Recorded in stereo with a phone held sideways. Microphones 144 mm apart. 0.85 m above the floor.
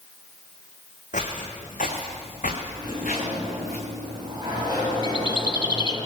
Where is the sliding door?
35° right (ahead or behind), 6.5 m.